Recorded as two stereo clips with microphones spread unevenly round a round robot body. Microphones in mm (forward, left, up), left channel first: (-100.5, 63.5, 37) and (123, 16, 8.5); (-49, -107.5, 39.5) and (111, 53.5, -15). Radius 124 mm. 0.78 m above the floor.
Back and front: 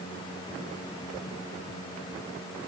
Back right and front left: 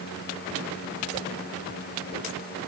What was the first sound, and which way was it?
Only background noise.